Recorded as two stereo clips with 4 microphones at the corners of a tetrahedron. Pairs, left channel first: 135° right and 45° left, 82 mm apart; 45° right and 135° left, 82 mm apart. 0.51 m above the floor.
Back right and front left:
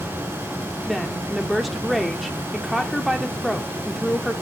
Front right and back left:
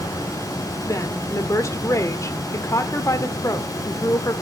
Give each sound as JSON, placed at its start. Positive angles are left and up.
{"t": 0.9, "sound": "a woman speaking", "azimuth_deg": -45, "distance_m": 1.6}